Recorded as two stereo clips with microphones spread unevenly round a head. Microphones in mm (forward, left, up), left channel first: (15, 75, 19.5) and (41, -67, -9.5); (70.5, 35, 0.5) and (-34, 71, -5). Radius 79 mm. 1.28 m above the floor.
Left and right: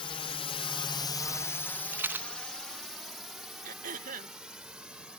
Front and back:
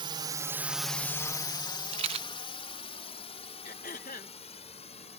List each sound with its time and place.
0.0 s a drone: 160° left; by 5.2 s 5° left
1.9 s a rattle: 165° right
3.6 s throat clearing: 55° right